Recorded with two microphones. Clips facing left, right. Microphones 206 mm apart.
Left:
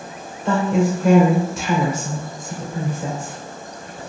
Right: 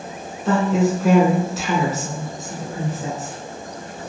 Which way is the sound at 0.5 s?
5° right (ahead or behind).